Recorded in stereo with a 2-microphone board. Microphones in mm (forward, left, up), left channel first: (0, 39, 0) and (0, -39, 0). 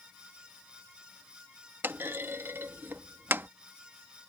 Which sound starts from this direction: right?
A clunk, at 1.8 s.